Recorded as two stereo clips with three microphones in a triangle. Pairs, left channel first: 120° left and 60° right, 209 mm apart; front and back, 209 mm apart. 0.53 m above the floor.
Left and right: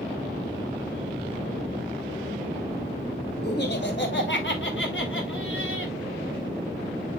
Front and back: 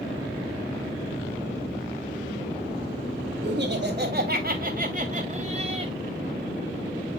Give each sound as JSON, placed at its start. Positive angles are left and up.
{"t": 3.4, "sound": "laughter", "azimuth_deg": 150, "distance_m": 2.5}